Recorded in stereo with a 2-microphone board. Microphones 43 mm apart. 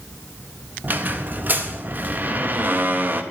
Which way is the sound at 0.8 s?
50° right (ahead or behind).